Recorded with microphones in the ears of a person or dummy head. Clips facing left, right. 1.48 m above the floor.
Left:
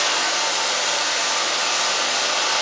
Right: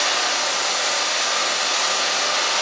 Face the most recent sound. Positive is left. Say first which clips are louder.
# even
turn(degrees=5)  # may be behind; listen again after turning